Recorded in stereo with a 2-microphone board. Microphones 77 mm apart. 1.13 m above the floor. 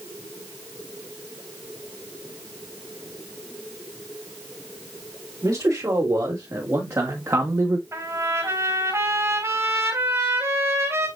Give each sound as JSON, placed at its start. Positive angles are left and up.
{"t": 5.4, "sound": "a man speaking", "side_deg": -50, "distance_m": 4.5}
{"t": 7.9, "sound": "a trumpet", "side_deg": -45, "distance_m": 5.0}